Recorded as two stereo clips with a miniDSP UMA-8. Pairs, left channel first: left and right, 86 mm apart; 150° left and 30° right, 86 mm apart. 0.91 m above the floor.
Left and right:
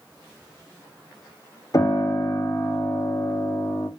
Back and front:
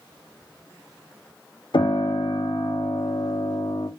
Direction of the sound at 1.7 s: 135° left.